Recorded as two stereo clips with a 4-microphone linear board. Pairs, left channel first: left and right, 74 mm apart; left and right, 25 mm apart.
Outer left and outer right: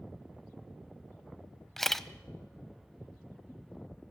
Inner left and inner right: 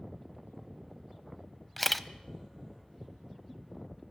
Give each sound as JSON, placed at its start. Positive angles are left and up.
{"t": 1.8, "sound": "a camera shutter", "side_deg": 5, "distance_m": 0.7}